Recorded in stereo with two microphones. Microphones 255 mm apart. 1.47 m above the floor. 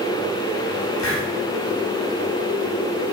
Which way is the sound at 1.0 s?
55° left (ahead or behind).